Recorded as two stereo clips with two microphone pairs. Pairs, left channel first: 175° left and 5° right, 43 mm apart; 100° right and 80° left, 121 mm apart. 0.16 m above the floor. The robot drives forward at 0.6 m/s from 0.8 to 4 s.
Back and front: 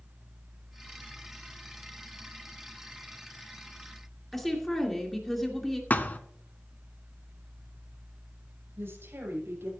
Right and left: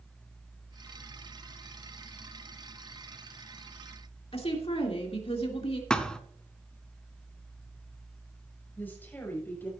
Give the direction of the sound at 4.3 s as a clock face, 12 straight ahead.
3 o'clock.